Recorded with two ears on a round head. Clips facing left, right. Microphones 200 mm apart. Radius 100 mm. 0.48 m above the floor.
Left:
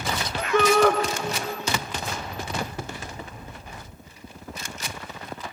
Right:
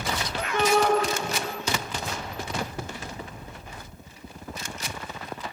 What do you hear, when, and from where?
0.5 s a shout: 65° left (ahead or behind), 2 m